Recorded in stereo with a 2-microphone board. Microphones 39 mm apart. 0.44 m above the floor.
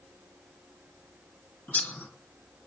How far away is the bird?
About 3.5 m.